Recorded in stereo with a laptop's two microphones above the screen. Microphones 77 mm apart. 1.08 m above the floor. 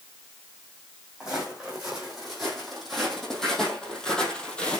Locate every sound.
1.2 s footsteps: 5° right (ahead or behind), 3.5 m; by 4.8 s 15° left (ahead or behind), 2 m